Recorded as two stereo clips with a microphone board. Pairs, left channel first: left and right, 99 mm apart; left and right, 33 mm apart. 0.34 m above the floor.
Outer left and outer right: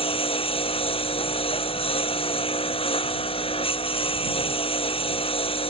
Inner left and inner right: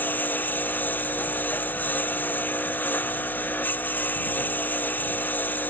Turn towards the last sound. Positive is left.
turn(degrees=70)  # may be behind; listen again after turning